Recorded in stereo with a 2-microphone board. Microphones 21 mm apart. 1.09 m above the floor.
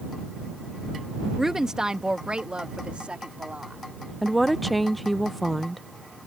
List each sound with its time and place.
1.4 s a woman speaking: 15° right (ahead or behind); by 3.8 s 80° right
4.2 s a woman speaking: 5° left (ahead or behind)